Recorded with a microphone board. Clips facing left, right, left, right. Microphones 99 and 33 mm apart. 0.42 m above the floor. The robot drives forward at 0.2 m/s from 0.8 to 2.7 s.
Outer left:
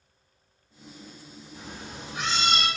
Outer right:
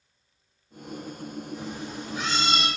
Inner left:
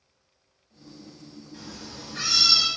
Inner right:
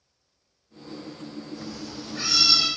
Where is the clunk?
I don't hear a clunk.